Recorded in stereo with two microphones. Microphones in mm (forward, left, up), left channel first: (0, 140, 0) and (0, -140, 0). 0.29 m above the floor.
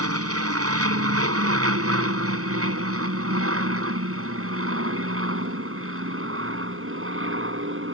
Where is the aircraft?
60° right (ahead or behind); by 8.0 s 50° right (ahead or behind).